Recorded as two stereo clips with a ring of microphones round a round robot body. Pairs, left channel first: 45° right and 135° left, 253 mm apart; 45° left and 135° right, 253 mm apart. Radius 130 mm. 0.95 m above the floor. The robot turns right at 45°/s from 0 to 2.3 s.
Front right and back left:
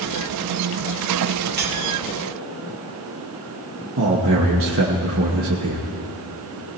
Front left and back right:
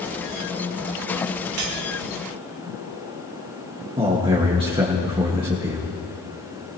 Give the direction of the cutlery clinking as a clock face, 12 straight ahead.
6 o'clock.